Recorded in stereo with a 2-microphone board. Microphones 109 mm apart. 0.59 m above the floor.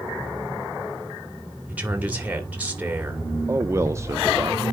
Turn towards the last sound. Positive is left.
turn(degrees=-25)  # may be behind; listen again after turning